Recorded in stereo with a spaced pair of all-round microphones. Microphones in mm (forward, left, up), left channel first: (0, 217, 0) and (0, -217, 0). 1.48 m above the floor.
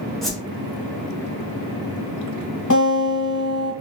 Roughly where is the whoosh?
Centre.